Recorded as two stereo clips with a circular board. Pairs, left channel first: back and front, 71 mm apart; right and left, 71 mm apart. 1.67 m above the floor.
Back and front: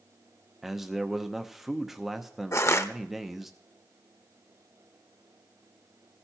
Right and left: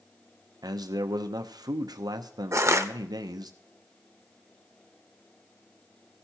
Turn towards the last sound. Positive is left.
turn(degrees=135)